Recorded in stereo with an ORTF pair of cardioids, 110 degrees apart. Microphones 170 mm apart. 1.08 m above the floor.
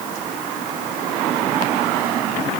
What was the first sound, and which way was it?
Only background noise.